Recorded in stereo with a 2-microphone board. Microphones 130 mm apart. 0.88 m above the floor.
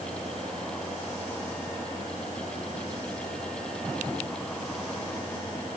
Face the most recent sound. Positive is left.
No sound to turn to.